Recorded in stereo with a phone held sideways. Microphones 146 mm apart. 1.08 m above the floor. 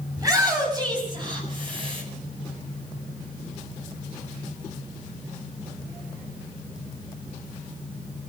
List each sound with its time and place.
0.2 s a shout: 25° right (ahead or behind), 7 m; by 2.0 s 35° right (ahead or behind), 7.5 m